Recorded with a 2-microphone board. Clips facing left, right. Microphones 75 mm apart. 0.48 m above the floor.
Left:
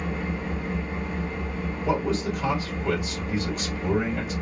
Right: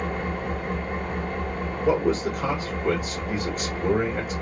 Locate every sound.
0.0 s an engine running: 50° right (ahead or behind), 1.1 m
1.9 s a man speaking: 40° right (ahead or behind), 1.8 m